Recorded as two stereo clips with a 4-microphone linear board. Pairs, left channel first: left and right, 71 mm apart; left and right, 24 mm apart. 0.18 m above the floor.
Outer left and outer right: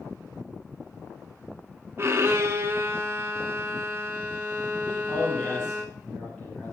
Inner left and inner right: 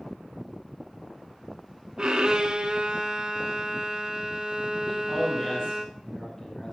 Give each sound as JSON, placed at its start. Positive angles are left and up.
{"t": 2.0, "sound": "a violin", "side_deg": -40, "distance_m": 1.2}
{"t": 4.8, "sound": "a man speaking", "side_deg": 5, "distance_m": 5.0}